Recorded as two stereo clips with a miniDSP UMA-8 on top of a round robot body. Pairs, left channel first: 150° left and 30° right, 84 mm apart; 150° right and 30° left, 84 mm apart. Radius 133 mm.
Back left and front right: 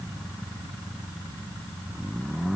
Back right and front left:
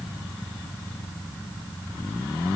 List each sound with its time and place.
Only background noise.